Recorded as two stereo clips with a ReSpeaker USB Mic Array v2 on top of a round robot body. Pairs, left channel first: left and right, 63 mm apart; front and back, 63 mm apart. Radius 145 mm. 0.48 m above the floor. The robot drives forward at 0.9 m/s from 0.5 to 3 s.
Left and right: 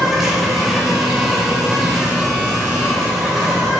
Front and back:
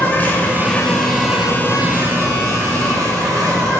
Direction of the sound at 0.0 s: 10° right.